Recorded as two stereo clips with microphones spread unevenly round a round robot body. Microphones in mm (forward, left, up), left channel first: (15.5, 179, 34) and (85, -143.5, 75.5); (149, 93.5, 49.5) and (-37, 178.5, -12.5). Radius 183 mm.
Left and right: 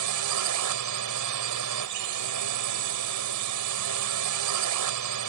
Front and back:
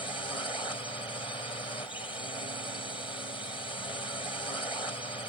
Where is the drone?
105° right.